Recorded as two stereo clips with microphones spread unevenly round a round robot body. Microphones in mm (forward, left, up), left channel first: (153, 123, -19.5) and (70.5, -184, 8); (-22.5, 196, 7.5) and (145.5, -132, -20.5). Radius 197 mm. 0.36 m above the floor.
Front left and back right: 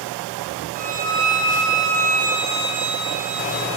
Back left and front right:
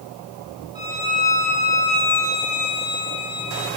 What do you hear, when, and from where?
0.8 s a violin: 140° right, 6 m